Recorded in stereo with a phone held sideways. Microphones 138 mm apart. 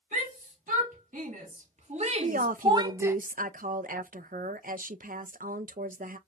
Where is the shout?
80° right, 1.8 m; by 3.1 s 15° right (ahead or behind), 0.6 m.